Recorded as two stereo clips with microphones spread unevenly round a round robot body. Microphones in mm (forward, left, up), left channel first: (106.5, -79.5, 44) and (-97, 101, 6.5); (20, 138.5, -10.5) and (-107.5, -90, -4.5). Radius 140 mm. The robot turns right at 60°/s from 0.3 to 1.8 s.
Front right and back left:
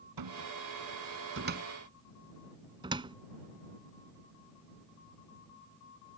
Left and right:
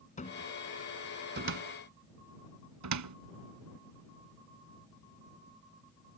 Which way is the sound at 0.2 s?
125° left.